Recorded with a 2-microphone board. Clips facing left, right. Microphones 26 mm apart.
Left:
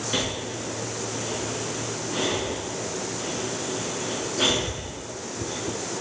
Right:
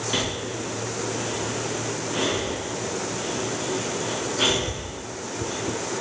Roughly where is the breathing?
Centre.